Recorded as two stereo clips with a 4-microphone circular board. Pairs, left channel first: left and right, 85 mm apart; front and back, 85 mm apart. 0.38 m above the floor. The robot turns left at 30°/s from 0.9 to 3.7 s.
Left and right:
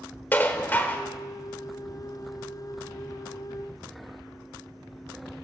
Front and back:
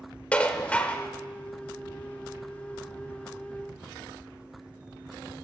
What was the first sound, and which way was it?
Dishes clattering, 55° left.